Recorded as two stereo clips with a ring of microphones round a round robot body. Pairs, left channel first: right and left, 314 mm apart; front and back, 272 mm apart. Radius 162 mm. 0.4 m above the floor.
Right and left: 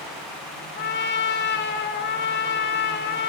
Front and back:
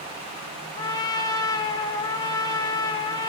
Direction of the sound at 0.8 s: 65° right.